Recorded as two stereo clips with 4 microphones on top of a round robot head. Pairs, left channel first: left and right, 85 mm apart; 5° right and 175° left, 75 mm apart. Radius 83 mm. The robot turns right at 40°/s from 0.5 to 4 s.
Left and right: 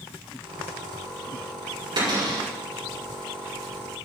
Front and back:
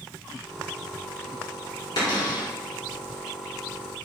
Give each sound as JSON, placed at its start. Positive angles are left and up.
{"t": 2.0, "sound": "a cupboard door", "azimuth_deg": -45, "distance_m": 5.0}